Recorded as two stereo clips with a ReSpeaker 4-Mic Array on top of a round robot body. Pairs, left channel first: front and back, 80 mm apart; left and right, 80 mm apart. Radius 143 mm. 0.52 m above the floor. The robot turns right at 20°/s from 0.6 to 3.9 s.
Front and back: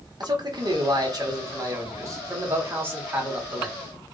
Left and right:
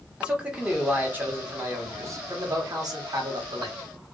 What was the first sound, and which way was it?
A man speaking, 165° right.